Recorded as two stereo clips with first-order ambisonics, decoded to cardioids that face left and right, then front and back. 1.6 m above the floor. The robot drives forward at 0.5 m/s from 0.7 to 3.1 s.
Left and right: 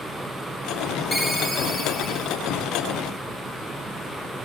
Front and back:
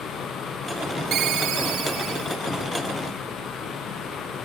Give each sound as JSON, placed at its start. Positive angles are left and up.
{"t": 1.1, "sound": "a ringtone", "azimuth_deg": 175, "distance_m": 0.8}